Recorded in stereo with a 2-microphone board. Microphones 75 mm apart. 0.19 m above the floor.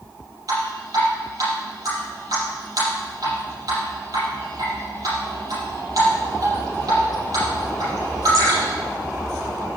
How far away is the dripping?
About 5.5 m.